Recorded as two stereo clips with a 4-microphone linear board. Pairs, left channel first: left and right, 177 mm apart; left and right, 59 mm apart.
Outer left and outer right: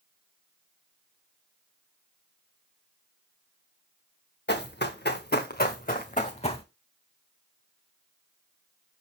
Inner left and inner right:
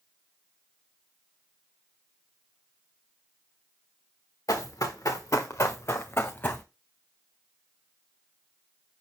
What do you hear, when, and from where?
4.5 s running footsteps: 75° left (ahead or behind), 1.8 m; by 6.6 s 30° left (ahead or behind), 1.0 m